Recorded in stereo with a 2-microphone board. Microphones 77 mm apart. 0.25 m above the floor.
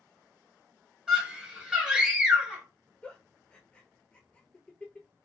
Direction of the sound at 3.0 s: 15° left (ahead or behind).